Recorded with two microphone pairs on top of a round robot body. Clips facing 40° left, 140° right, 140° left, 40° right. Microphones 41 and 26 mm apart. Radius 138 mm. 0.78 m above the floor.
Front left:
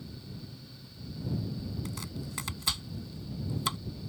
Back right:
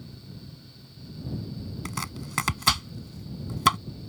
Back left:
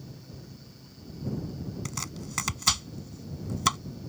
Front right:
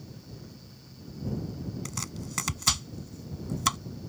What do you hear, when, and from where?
1.9 s chopping: 130° right